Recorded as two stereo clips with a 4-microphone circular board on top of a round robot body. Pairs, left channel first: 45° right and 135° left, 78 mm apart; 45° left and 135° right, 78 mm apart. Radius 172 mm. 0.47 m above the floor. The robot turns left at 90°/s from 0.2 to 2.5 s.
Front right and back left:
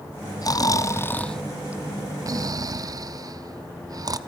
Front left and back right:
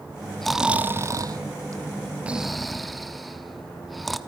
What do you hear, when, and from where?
0.4 s snoring: 40° right, 1.0 m; by 4.2 s 135° left, 1.0 m